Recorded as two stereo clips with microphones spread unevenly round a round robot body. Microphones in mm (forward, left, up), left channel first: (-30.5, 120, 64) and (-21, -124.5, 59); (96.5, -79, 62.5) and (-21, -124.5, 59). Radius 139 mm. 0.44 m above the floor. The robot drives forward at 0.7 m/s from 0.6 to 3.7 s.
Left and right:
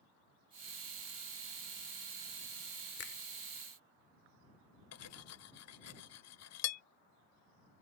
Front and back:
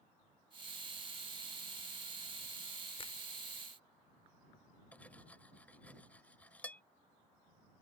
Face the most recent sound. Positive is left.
turn(degrees=105)